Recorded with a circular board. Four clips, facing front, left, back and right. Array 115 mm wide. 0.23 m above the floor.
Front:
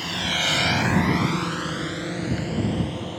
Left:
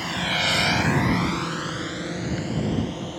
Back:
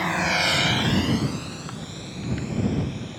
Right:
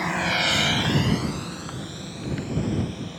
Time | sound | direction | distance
0.0 | a drone | 150° right | ?